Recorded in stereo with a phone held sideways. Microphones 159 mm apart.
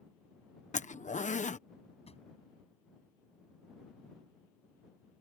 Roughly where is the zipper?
Left.